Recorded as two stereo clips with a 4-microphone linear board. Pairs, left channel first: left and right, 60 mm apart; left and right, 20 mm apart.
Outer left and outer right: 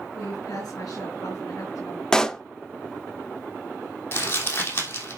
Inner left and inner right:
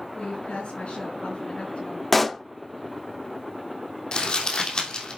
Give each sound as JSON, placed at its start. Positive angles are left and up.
{"t": 0.1, "sound": "a woman speaking", "side_deg": 75, "distance_m": 5.0}
{"t": 2.1, "sound": "a pop", "side_deg": 10, "distance_m": 0.6}
{"t": 4.1, "sound": "crumpling", "side_deg": 40, "distance_m": 2.5}